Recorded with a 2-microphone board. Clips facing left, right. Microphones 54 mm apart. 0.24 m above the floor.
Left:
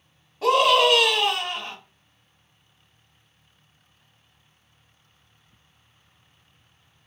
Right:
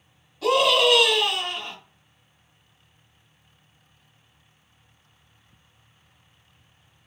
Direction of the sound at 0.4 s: 30° left (ahead or behind).